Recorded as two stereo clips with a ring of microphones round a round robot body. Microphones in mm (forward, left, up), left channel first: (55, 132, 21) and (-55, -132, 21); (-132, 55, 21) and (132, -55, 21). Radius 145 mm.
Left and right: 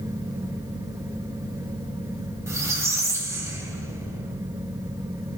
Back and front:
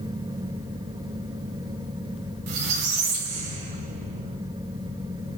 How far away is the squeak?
About 2.0 m.